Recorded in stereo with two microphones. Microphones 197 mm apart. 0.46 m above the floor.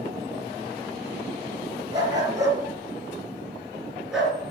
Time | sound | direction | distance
1.9 | a dog barking | 20° right (ahead or behind) | 3.5 m